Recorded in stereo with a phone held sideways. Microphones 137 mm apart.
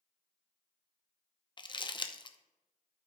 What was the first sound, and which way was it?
Crumpling, 35° left (ahead or behind).